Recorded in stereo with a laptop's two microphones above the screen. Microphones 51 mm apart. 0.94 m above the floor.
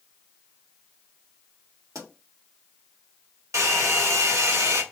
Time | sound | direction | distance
1.9 | a pop | 75° right (ahead or behind) | 1.9 m
3.5 | a hair dryer | 70° right (ahead or behind) | 1.5 m